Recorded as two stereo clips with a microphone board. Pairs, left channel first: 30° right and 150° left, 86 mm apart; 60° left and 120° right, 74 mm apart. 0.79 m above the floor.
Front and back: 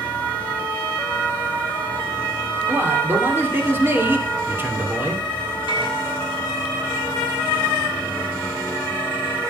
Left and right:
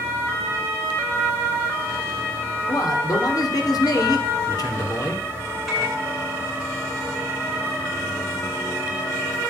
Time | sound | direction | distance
2.7 | a man speaking | 90° left | 3 m
5.7 | a microwave | 150° left | 5.5 m